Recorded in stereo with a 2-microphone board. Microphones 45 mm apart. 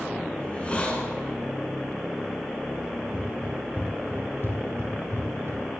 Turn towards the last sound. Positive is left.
turn(degrees=-75)  # may be behind; listen again after turning